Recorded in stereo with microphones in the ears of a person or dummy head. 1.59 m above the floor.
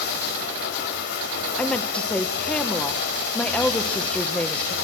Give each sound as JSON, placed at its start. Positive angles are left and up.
{"t": 0.0, "sound": "running water", "side_deg": 70, "distance_m": 4.5}
{"t": 1.6, "sound": "a woman speaking", "side_deg": 5, "distance_m": 1.0}